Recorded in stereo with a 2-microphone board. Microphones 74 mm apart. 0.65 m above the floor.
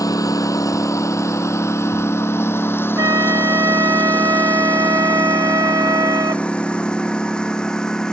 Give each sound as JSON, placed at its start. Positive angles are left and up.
{"t": 0.0, "sound": "a lawn mower", "side_deg": 50}
{"t": 3.0, "sound": "a flute", "side_deg": -60}